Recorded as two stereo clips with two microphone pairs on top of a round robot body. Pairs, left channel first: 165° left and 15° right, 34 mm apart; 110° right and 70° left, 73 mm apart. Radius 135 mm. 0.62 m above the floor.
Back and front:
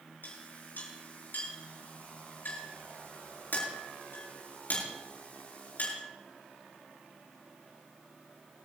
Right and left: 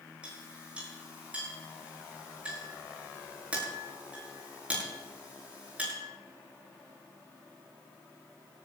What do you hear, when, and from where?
0.2 s a clink: 140° left, 7.5 m